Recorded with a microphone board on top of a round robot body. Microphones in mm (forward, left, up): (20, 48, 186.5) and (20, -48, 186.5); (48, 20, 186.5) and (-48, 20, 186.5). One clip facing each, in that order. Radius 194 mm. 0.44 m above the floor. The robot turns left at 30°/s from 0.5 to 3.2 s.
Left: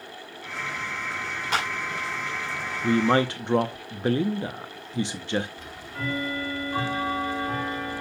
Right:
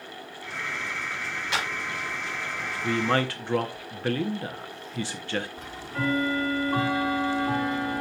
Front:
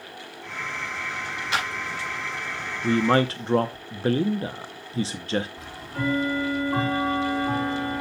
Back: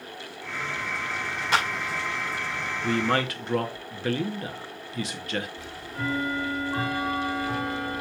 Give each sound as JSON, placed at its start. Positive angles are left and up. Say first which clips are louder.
{"t": 1.5, "sound": "a clap", "louder": "left 3 dB, back 3 dB", "azimuth_deg": 135, "distance_m": 6.0}
{"t": 2.8, "sound": "a man speaking", "louder": "left 4 dB, front 5 dB", "azimuth_deg": 45, "distance_m": 0.9}
{"t": 5.6, "sound": "ticking", "louder": "right 4 dB, front 3 dB", "azimuth_deg": -35, "distance_m": 4.0}